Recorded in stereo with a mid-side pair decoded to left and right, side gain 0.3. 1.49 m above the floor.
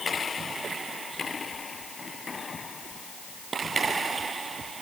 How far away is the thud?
I don't hear a thud.